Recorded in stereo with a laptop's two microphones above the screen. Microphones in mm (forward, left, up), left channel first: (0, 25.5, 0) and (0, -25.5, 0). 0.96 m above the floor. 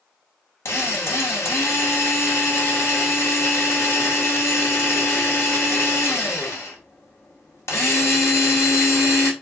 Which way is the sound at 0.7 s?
55° left (ahead or behind).